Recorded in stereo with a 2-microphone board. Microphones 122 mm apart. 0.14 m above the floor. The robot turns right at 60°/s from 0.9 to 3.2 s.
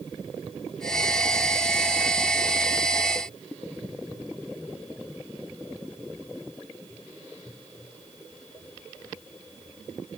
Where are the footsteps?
No footsteps in this recording.